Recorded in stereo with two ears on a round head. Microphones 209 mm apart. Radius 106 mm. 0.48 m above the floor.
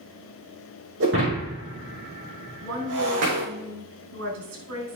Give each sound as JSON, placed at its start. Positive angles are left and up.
{"t": 1.0, "sound": "breaking glass", "side_deg": -60, "distance_m": 5.0}
{"t": 2.6, "sound": "a woman speaking", "side_deg": -65, "distance_m": 5.0}